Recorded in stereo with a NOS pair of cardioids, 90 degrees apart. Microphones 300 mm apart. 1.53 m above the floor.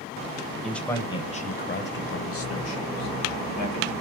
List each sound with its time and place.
0.6 s a man speaking: straight ahead, 1.1 m; by 3.9 s 75° left, 1.9 m